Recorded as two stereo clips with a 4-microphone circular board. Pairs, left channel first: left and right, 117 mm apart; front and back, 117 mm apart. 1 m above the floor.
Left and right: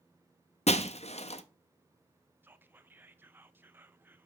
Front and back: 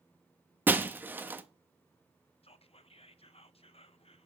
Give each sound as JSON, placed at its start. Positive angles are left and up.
{"t": 0.7, "sound": "breaking glass", "azimuth_deg": 105, "distance_m": 0.6}
{"t": 2.4, "sound": "whispering", "azimuth_deg": -20, "distance_m": 0.6}